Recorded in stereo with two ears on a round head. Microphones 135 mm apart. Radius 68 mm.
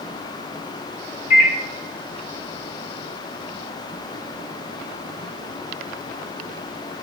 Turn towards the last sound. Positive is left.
turn(degrees=50)  # may be behind; listen again after turning